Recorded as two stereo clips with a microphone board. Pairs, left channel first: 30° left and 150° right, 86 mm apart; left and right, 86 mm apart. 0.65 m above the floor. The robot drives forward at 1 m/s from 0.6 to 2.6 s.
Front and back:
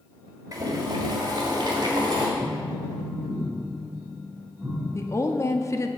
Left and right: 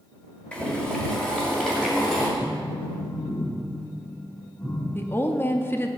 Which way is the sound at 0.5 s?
165° left.